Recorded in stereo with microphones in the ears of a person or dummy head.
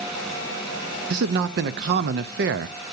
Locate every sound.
1.1 s a man speaking: 50° right (ahead or behind), 0.5 m